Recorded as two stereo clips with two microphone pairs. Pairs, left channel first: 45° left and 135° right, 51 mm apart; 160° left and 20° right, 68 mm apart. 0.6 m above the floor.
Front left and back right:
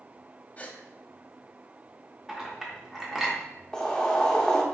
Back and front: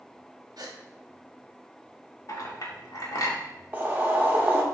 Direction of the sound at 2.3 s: 145° left.